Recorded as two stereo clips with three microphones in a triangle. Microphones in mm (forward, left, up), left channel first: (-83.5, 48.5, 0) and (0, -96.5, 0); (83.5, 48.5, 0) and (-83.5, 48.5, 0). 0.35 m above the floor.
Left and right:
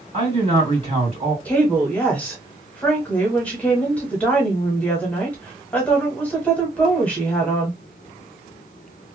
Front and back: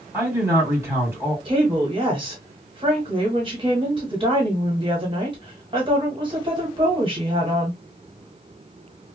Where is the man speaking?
110° right, 2 m.